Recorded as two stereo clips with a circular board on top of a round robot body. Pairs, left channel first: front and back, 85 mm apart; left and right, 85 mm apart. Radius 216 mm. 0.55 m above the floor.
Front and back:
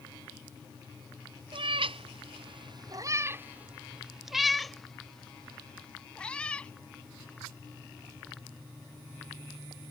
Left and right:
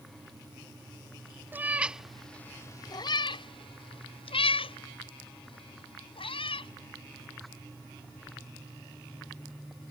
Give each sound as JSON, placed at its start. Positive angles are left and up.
{"t": 1.5, "sound": "a cat meowing", "azimuth_deg": -160}